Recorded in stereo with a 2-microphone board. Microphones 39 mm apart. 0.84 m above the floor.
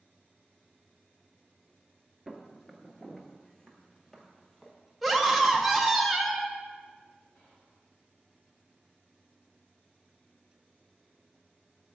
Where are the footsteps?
5° left (ahead or behind), 0.8 m; by 4.7 s 15° left (ahead or behind), 1.5 m.